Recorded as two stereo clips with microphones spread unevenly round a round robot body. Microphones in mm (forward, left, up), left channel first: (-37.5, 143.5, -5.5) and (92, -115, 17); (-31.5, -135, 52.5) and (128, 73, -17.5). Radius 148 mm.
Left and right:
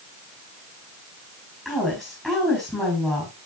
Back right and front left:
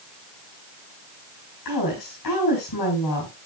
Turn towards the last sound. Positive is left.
turn(degrees=-155)